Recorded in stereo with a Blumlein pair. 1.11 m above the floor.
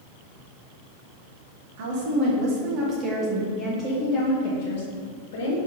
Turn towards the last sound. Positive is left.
turn(degrees=55)